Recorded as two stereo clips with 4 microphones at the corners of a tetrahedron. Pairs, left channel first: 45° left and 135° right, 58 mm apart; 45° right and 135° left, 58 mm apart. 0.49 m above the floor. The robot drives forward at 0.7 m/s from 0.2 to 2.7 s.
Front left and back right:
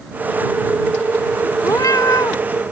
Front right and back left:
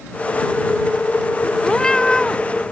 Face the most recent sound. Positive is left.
turn(degrees=35)